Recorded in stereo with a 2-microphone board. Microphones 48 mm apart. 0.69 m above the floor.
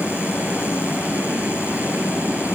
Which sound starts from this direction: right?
Running water, at 0.0 s.